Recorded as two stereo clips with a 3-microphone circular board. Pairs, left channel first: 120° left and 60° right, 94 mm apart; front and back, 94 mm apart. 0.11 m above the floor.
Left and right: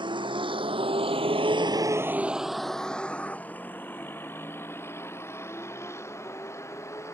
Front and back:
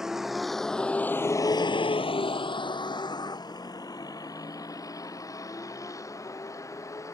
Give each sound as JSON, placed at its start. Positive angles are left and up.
{"t": 0.0, "sound": "a vehicle", "azimuth_deg": -95}